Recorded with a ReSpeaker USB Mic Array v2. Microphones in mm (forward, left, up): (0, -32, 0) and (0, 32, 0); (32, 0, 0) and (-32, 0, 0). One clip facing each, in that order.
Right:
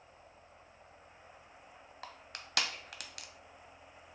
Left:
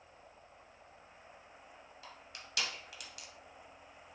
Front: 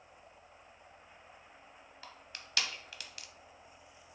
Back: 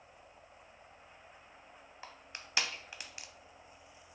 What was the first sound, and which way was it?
Crushing, 115° right.